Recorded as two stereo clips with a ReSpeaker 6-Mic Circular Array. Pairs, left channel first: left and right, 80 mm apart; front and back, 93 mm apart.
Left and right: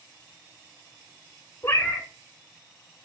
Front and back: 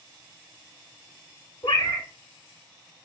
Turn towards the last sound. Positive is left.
turn(degrees=30)